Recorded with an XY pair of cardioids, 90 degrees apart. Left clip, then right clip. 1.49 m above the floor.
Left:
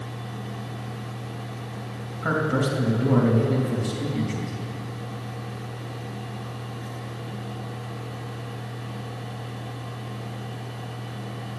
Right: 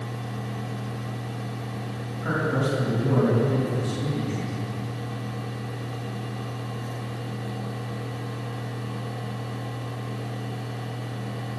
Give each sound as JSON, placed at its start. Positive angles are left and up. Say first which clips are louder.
{"t": 0.0, "sound": "a fan", "louder": "right 2 dB", "azimuth_deg": -30, "distance_m": 1.8}
{"t": 2.2, "sound": "a man speaking", "louder": "left 2 dB", "azimuth_deg": 60, "distance_m": 2.5}